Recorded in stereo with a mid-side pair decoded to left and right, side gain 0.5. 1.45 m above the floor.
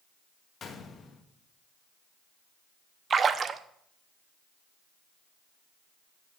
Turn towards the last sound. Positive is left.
turn(degrees=-40)